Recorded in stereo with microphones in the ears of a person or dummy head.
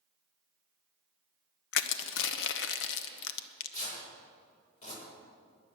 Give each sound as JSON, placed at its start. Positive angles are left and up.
{"t": 1.7, "sound": "crushing", "side_deg": 70, "distance_m": 1.0}
{"t": 3.3, "sound": "tearing paper", "side_deg": 45, "distance_m": 8.0}